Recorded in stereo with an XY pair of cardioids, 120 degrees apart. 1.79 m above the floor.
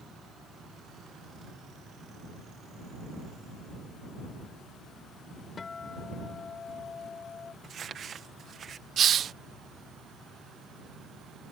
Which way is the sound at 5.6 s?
35° left.